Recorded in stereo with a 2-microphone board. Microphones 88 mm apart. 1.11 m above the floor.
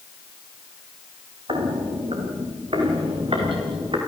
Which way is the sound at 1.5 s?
75° right (ahead or behind).